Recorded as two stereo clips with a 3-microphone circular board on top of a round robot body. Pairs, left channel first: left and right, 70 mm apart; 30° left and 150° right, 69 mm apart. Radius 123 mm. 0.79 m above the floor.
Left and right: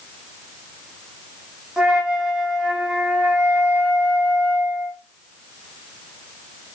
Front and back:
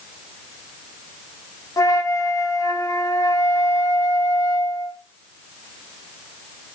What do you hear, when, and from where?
1.8 s a flute: 10° right, 1.1 m